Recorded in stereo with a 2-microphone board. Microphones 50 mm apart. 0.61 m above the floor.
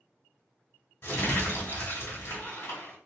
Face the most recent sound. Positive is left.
turn(degrees=55)  # may be behind; listen again after turning